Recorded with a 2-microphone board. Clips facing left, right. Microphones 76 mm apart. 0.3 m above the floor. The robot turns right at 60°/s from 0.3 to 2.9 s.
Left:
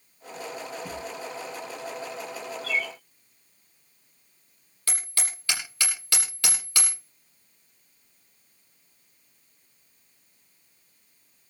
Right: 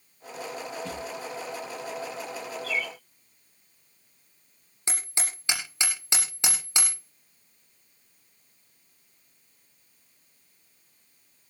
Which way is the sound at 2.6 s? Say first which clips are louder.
Left 2 dB; 50° left (ahead or behind).